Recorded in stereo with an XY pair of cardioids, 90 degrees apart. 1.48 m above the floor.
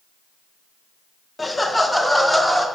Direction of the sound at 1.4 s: 25° left.